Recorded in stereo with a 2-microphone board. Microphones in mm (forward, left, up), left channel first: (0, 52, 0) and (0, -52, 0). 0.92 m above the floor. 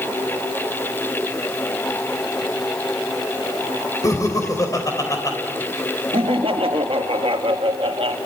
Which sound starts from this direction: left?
Laughter, at 4.0 s.